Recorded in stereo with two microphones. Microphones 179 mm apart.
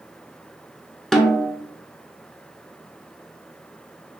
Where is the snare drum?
5° left (ahead or behind), 0.6 m.